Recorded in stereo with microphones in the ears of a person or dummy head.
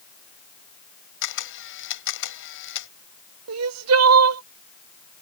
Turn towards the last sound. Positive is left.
turn(degrees=-80)